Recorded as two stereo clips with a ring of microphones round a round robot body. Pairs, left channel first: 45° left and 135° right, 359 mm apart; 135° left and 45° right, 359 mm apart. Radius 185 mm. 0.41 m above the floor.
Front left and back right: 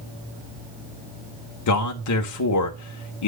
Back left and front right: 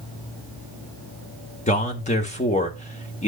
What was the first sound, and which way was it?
A man speaking, 70° left.